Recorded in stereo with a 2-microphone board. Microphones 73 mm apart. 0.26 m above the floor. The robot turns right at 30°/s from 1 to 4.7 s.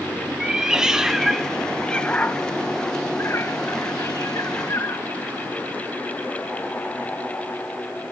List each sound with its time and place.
0.4 s a cat meowing: 10° right (ahead or behind), 0.6 m; by 5.0 s 45° left (ahead or behind), 0.6 m